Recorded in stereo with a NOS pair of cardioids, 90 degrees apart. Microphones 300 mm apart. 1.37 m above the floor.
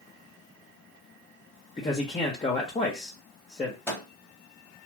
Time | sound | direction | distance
1.8 | a man speaking | 20° left | 1.1 m
3.9 | a microwave | 5° left | 1.4 m